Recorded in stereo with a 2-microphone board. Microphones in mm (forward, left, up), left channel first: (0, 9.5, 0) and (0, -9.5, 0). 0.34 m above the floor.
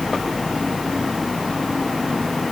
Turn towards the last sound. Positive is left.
No sound to turn to.